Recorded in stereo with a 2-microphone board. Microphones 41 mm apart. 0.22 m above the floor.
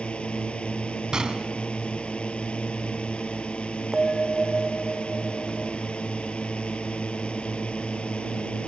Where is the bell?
5° right (ahead or behind).